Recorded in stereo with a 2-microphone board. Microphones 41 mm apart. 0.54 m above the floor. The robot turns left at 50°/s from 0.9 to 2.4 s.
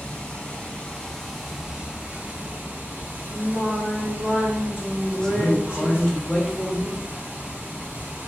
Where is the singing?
45° right (ahead or behind), 1.8 m.